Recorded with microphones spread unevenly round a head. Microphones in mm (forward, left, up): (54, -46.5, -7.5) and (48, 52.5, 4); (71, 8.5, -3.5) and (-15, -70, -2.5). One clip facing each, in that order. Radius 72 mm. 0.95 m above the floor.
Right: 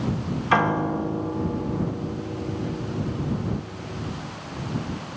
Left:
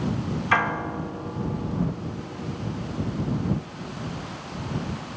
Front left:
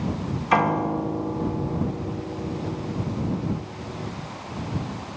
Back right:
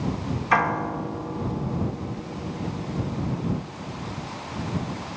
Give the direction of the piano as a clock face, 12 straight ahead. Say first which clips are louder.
Right 4 dB, front left 2 dB; 1 o'clock.